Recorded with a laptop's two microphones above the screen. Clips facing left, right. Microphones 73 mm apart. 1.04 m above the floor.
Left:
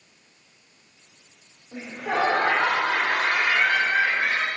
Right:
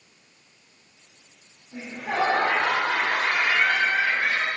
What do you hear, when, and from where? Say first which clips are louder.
1.7 s laughter: left 2 dB; 70° left (ahead or behind), 3 m